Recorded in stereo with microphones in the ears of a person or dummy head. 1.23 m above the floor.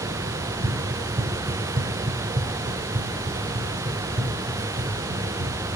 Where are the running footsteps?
30° right (ahead or behind), 1.7 m; by 5.5 s 70° right (ahead or behind), 4 m.